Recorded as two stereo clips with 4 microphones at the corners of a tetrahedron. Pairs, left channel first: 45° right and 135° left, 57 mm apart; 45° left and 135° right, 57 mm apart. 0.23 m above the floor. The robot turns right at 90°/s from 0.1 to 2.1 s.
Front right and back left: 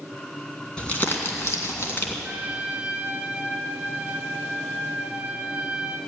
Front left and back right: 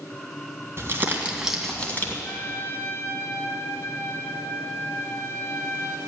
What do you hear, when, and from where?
0.8 s crumpling: 115° right, 2 m; by 2.1 s 5° left, 2 m
2.2 s a trumpet: 70° left, 1.4 m